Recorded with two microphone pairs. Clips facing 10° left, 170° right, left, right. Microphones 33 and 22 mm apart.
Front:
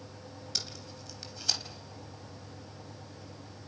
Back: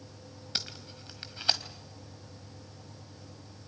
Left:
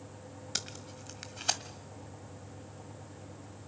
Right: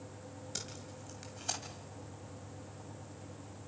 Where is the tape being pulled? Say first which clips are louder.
Back 3 dB, left 7 dB; 140° left, 1.8 m.